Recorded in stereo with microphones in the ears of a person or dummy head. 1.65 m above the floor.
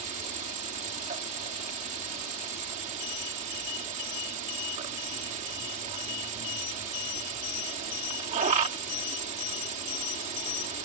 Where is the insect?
40° right (ahead or behind).